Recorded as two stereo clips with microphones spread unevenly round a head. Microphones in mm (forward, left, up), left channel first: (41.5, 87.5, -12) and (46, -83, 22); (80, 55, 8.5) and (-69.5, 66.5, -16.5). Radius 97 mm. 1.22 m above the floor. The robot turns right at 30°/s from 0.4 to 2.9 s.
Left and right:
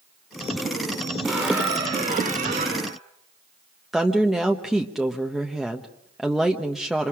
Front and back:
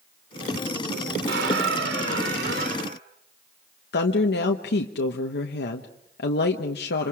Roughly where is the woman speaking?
Ahead.